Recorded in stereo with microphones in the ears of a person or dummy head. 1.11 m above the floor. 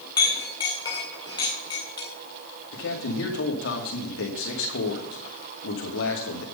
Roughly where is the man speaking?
Left.